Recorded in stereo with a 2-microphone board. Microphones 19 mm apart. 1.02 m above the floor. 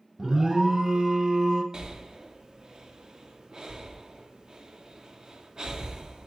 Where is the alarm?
30° right (ahead or behind), 0.7 m.